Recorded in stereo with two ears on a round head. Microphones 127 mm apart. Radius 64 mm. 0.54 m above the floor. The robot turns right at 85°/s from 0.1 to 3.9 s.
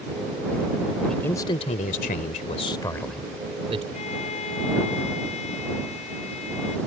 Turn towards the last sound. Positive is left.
turn(degrees=50)  # may be behind; listen again after turning